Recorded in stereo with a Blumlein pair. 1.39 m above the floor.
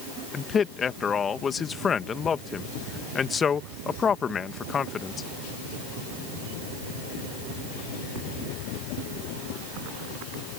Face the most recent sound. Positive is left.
turn(degrees=20)